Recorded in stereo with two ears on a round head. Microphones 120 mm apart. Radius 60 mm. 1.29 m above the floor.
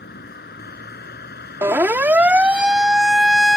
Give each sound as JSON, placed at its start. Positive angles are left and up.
{"t": 0.0, "sound": "a vehicle", "side_deg": 85}
{"t": 1.6, "sound": "a siren", "side_deg": -20}